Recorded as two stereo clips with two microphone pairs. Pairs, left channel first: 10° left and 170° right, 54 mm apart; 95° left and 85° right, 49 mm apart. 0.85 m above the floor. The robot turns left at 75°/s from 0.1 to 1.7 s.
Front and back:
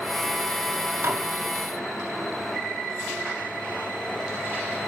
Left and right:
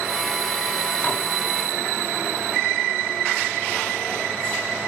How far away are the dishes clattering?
About 3.5 m.